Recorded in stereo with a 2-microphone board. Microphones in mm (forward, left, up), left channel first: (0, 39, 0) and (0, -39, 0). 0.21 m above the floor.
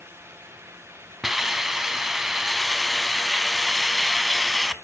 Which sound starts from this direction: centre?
A hiss, at 1.2 s.